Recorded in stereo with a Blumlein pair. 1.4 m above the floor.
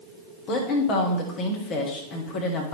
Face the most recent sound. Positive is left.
turn(degrees=35)